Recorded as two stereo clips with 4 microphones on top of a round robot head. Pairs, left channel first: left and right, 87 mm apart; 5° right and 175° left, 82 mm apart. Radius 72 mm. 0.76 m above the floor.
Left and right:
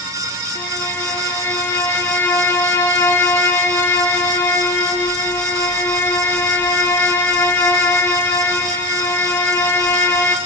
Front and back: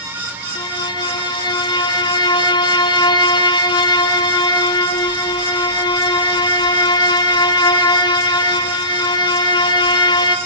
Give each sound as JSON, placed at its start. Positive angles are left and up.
{"t": 0.6, "sound": "a violin", "azimuth_deg": 25, "distance_m": 0.9}